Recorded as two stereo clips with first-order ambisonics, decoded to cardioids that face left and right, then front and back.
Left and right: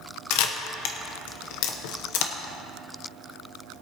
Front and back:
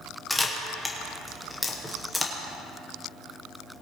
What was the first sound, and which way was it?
A camera shutter, 90° left.